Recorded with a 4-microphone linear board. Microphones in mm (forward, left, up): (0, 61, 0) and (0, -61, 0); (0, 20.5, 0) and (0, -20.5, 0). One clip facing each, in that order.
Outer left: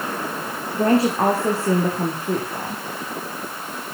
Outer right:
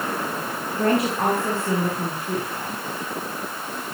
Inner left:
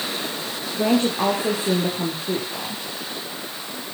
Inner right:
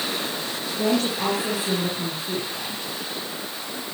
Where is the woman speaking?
30° left (ahead or behind), 5 m; by 2.8 s 40° left (ahead or behind), 5.5 m.